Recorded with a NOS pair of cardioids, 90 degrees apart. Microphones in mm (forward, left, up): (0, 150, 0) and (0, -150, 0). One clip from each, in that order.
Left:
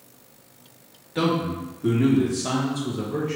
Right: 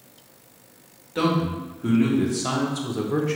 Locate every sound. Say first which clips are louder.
1.1 s a man speaking: even; straight ahead, 1.7 m; by 3.4 s 50° right, 1.1 m